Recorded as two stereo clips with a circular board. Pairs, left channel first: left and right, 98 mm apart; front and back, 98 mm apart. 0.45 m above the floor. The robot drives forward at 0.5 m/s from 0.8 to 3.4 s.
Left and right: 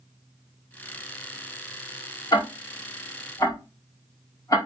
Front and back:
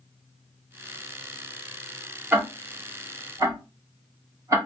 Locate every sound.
2.3 s ticking: 110° left, 1.7 m; by 4.6 s 130° left, 1.9 m